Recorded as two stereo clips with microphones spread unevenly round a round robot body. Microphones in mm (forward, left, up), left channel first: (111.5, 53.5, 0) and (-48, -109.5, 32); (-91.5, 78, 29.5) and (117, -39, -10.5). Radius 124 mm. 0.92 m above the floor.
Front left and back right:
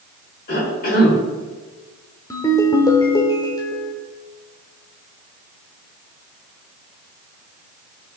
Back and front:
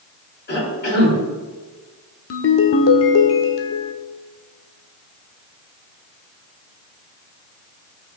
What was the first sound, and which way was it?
A cough, 100° left.